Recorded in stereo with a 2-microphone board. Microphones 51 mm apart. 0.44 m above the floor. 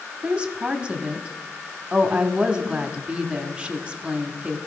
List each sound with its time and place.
0.2 s a woman speaking: 20° right (ahead or behind), 1.1 m